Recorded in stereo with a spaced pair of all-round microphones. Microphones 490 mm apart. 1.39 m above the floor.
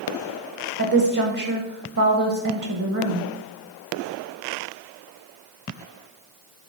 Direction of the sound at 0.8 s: 40° right (ahead or behind).